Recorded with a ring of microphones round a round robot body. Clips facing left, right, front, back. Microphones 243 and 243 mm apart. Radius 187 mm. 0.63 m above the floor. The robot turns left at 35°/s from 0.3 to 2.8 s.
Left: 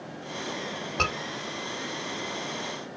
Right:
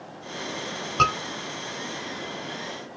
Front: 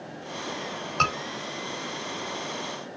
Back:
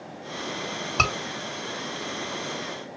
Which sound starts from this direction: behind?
A scream, at 1.0 s.